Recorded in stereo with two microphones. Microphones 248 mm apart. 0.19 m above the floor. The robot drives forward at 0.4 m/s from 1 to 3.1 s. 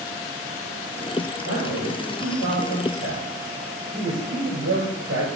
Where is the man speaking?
70° right (ahead or behind), 3 m; by 5.3 s 60° right (ahead or behind), 3 m.